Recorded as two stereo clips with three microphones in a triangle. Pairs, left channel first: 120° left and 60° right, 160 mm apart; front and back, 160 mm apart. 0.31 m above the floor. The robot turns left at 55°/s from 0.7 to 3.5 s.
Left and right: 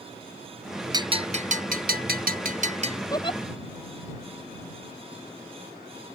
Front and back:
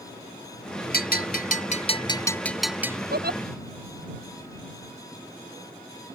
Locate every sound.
0.9 s a bell: 5° left; by 3.0 s 110° right
3.1 s a giggle: 170° right; by 3.4 s 170° left